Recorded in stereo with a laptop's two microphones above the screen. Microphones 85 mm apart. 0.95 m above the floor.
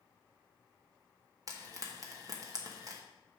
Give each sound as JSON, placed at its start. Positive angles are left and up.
{"t": 1.5, "sound": "frying", "side_deg": -45, "distance_m": 1.1}